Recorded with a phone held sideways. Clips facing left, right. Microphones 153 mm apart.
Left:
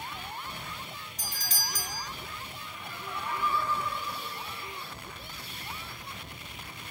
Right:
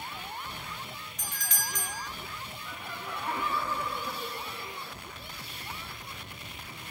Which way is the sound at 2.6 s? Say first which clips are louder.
Right 3 dB; 75° right (ahead or behind).